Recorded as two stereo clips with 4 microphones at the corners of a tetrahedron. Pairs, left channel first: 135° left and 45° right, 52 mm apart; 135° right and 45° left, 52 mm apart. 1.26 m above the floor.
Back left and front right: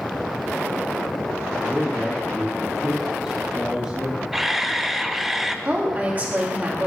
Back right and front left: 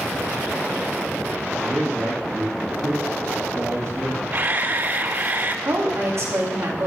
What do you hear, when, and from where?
1.6 s a man speaking: 40° left, 3 m
4.3 s a camera shutter: 40° left, 0.6 m
5.7 s a woman speaking: 20° left, 2.5 m